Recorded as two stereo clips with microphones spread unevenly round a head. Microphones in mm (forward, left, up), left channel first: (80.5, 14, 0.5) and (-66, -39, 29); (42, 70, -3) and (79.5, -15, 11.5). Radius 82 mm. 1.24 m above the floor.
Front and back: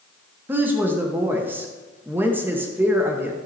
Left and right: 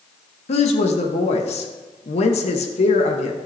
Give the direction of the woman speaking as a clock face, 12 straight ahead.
8 o'clock.